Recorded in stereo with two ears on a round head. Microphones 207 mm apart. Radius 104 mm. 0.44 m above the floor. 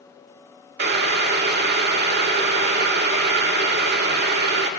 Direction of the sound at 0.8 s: 45° right (ahead or behind).